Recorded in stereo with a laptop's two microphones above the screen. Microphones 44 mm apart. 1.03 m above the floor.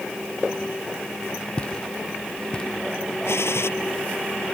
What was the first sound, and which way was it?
Footsteps, 25° left (ahead or behind).